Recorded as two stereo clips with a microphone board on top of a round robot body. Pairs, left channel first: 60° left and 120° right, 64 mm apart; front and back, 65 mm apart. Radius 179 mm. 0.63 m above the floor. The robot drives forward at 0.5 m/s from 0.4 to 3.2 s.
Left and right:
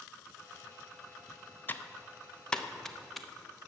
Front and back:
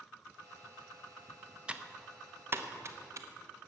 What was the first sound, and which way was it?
Typing on a keyboard, 110° left.